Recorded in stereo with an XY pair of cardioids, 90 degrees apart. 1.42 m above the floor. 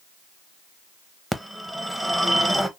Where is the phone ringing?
Straight ahead, 1.0 m.